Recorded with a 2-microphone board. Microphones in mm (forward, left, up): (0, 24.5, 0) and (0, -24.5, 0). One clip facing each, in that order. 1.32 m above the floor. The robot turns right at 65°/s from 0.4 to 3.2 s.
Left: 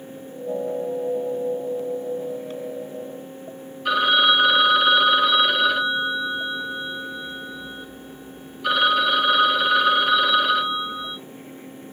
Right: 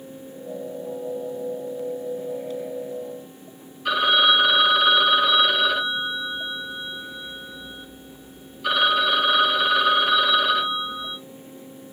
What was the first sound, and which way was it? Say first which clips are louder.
A phone ringing: left 1 dB; 5° right (ahead or behind).